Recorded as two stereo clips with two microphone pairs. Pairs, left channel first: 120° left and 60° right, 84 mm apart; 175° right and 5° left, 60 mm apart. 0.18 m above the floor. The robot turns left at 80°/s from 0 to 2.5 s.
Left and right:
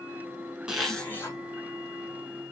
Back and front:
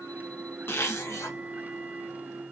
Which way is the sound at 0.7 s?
140° right.